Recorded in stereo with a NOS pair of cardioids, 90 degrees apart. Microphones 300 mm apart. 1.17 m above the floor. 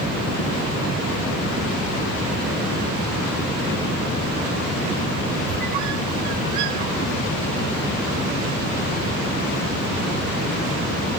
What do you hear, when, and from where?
5.5 s a squeak: 70° right, 1.5 m